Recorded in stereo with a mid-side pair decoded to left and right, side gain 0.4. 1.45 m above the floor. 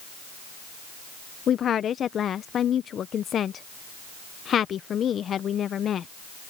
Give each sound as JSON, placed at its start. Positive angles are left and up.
{"t": 1.5, "sound": "a woman speaking", "azimuth_deg": 60}